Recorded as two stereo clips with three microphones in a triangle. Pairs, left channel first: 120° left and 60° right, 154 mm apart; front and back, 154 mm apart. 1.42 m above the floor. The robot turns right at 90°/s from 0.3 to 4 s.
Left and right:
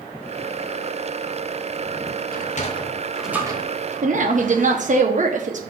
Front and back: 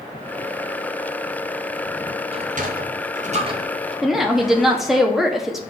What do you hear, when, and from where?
2.3 s a sliding door: 130° left, 0.8 m; by 5.0 s 80° right, 0.8 m
4.0 s a woman speaking: 95° right, 1.1 m